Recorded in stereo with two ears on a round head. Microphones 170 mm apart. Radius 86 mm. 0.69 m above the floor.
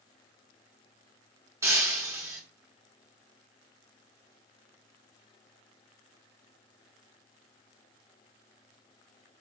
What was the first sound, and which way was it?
Breaking glass, 15° right (ahead or behind).